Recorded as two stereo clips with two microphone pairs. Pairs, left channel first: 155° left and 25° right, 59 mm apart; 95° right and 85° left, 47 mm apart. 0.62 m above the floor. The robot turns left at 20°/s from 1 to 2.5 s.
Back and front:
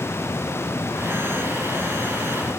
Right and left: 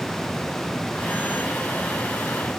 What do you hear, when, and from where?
Only background noise.